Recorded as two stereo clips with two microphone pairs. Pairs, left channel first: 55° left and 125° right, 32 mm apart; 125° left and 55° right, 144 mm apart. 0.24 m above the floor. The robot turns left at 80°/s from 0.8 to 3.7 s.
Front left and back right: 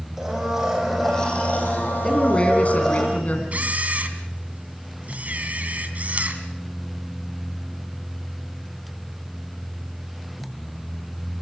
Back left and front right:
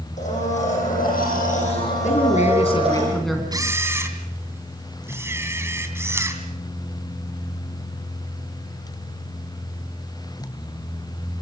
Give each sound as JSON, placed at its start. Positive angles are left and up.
{"t": 0.2, "sound": "a blender", "azimuth_deg": 160, "distance_m": 9.0}
{"t": 2.0, "sound": "a man speaking", "azimuth_deg": 140, "distance_m": 3.0}
{"t": 3.5, "sound": "a camera shutter", "azimuth_deg": -105, "distance_m": 2.5}